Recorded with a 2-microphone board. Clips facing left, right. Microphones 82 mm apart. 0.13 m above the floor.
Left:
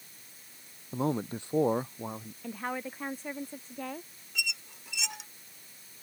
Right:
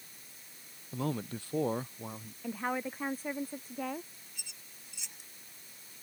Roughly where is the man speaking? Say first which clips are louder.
Left 5 dB; left.